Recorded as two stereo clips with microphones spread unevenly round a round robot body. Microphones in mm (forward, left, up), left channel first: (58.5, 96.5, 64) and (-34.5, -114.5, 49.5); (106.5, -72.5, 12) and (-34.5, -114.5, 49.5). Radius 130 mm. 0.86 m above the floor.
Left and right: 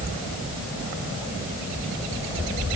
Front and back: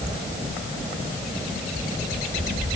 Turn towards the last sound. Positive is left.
No sound to turn to.